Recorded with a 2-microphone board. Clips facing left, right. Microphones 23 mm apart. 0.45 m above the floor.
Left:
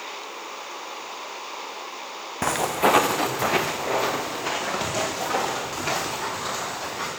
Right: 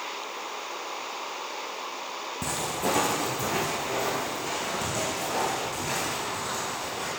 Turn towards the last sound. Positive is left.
turn(degrees=45)  # may be behind; listen again after turning